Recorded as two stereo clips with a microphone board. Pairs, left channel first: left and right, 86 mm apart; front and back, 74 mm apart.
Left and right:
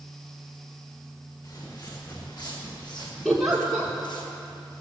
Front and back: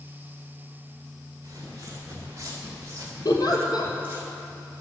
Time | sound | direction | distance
1.4 | footsteps | 135° left | 5.5 m
3.2 | a giggle | straight ahead | 2 m